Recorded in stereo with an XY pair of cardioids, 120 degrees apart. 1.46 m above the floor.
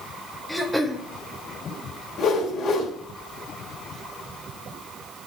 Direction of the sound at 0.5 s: Straight ahead.